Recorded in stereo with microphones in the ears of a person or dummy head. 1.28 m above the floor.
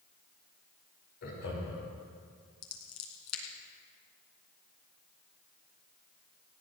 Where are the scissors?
75° left (ahead or behind), 3.5 m.